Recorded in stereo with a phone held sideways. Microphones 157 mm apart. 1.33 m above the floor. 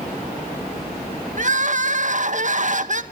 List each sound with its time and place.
1.4 s crying: 50° right (ahead or behind), 1.7 m